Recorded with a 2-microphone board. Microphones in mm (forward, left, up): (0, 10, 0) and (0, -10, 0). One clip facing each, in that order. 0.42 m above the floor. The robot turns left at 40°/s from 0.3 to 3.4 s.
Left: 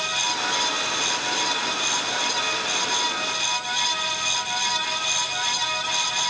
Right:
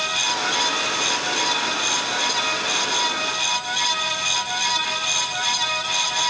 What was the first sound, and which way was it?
Only background noise.